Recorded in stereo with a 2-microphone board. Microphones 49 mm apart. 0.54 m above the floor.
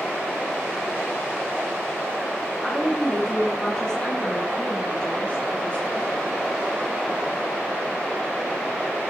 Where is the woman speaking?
5° left (ahead or behind), 7 m; by 6.1 s 25° left (ahead or behind), 7.5 m.